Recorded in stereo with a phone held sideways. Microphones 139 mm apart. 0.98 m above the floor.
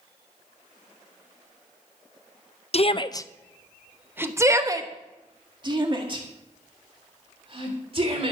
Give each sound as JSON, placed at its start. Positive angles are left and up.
{"t": 2.7, "sound": "a shout", "side_deg": 50, "distance_m": 0.6}